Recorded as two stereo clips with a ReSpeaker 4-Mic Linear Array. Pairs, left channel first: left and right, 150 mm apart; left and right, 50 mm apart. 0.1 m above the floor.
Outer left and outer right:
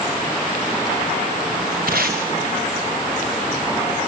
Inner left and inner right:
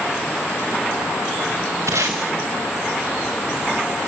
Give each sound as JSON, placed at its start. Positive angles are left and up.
{"t": 1.9, "sound": "tape being pulled", "side_deg": -85, "distance_m": 4.5}